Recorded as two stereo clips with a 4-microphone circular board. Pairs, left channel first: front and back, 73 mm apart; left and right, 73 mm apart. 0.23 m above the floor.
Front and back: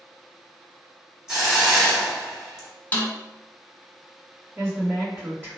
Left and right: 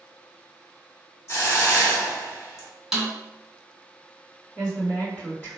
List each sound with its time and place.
1.3 s a hiss: 105° left, 1.0 m
2.9 s a snare drum: 15° right, 0.7 m
4.5 s a woman speaking: 135° left, 1.9 m